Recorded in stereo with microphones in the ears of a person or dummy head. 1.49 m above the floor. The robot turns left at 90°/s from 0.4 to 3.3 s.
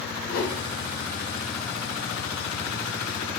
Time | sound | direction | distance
0.3 | a whoosh | 60° left (ahead or behind) | 0.7 m